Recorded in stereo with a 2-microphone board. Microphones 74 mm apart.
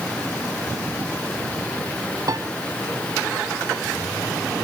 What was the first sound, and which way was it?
A piano, 50° right (ahead or behind).